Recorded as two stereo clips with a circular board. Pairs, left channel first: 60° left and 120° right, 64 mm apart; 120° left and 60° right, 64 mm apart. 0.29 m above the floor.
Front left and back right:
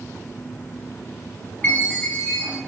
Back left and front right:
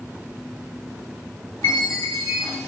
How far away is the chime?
About 1.6 m.